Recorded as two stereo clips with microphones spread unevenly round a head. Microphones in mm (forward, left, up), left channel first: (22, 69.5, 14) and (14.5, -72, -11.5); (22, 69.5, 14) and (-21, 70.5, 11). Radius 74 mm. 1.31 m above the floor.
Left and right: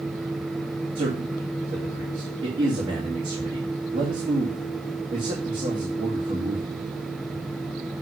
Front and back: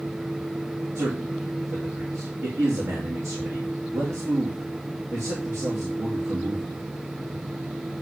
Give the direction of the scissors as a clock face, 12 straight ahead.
I don't hear scissors.